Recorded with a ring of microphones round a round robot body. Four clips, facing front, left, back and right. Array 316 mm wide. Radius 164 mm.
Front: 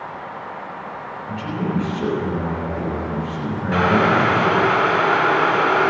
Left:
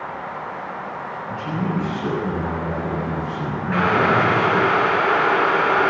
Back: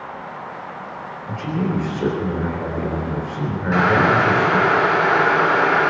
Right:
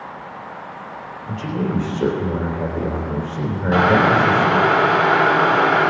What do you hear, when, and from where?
1.3 s a man speaking: 100° right, 3.5 m
3.7 s boiling: 95° right, 2.5 m